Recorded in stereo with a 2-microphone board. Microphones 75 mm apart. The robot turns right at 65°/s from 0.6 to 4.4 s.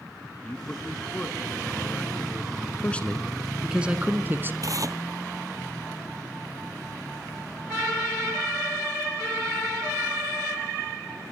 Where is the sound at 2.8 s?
145° left, 1.4 m; by 4.5 s 115° right, 1.4 m.